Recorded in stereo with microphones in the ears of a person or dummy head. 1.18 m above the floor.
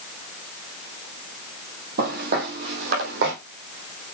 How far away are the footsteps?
About 2.5 m.